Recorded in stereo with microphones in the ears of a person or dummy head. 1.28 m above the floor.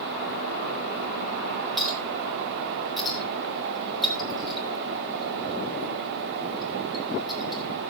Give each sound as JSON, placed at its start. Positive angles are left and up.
{"t": 1.8, "sound": "a clink", "side_deg": -5, "distance_m": 4.0}